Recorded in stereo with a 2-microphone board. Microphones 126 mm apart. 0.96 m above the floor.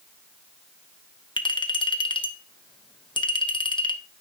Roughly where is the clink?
Left.